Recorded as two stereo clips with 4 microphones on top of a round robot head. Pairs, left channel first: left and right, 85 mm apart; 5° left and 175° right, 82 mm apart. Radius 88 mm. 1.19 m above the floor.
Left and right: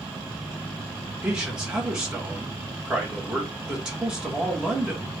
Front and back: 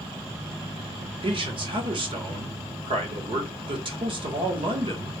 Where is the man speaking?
170° right, 1.2 m.